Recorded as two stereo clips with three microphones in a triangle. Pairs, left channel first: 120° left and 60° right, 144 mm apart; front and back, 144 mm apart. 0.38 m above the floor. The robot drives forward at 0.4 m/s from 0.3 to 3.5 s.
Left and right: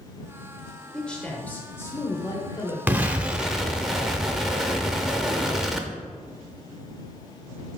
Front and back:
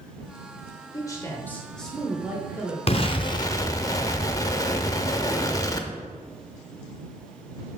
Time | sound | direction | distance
0.9 | a man speaking | 40° left | 1.0 m
2.9 | an explosion | 10° left | 0.7 m